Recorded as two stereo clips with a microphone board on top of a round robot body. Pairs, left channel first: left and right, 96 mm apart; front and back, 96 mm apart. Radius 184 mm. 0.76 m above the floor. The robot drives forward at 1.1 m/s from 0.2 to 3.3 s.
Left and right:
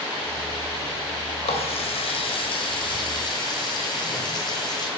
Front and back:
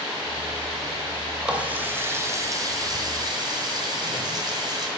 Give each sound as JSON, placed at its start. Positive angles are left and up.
{"t": 1.4, "sound": "a running tap", "azimuth_deg": 100, "distance_m": 2.5}